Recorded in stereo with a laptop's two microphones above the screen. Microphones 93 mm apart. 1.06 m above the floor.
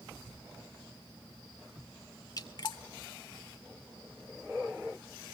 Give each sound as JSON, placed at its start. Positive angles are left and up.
{"t": 2.4, "sound": "dripping", "side_deg": 45, "distance_m": 2.5}